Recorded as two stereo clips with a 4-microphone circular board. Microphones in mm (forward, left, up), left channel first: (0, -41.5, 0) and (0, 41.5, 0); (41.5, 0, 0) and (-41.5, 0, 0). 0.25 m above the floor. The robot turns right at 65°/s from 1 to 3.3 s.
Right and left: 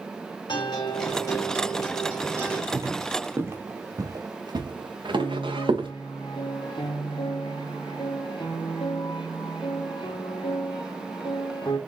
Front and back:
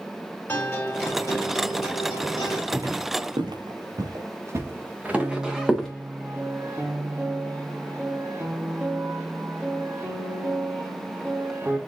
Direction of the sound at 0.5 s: 65° right.